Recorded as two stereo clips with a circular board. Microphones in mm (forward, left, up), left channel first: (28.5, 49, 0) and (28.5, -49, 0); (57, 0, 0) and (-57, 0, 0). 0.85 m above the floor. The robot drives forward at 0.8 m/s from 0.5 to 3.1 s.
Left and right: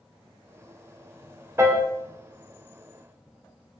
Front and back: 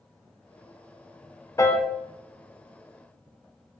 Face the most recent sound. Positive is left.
turn(degrees=-165)